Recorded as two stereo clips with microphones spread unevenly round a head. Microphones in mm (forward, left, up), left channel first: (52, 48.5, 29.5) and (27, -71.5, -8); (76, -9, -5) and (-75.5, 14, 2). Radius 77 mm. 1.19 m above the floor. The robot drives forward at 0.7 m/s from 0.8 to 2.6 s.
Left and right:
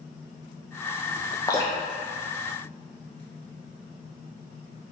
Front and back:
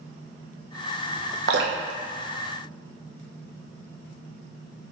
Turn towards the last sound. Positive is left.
turn(degrees=165)